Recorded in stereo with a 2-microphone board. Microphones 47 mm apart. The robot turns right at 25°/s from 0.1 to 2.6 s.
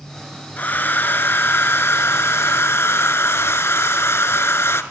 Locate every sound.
0.6 s a hair dryer: 45° left, 0.5 m; by 4.8 s 95° left, 0.5 m